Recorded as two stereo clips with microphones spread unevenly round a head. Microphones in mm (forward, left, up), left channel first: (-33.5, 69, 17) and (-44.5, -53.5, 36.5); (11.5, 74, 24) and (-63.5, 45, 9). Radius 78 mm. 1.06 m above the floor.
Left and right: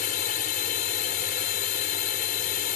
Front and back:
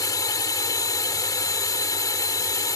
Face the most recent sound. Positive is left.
turn(degrees=60)